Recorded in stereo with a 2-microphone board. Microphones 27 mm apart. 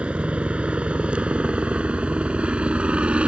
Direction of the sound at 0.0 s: 40° right (ahead or behind).